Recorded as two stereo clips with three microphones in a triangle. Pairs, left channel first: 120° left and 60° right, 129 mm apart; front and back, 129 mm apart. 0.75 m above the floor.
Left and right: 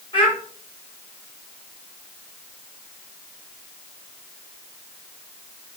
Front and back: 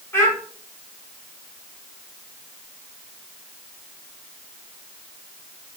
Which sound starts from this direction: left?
A child speaking, at 0.1 s.